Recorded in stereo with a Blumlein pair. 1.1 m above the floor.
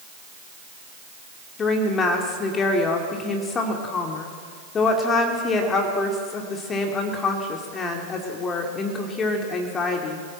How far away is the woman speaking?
About 2.5 m.